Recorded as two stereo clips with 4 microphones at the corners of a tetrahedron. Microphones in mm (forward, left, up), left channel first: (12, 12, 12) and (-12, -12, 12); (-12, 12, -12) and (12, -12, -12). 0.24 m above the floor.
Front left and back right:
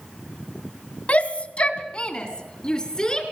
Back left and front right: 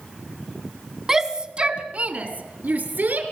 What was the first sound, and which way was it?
A shout, 25° left.